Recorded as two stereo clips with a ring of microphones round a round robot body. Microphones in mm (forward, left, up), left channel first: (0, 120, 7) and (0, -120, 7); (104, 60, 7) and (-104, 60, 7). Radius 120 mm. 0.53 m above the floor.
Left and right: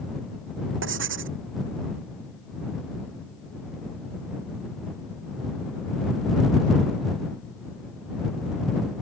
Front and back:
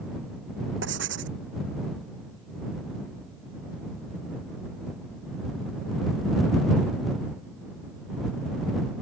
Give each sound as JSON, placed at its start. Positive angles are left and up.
{"t": 0.8, "sound": "writing", "azimuth_deg": -130}